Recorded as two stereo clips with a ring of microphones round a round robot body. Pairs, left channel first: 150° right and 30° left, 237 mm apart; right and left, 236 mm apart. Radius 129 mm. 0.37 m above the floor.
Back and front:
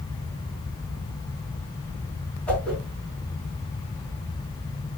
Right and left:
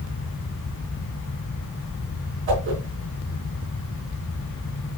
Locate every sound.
2.5 s a whoosh: 125° left, 4 m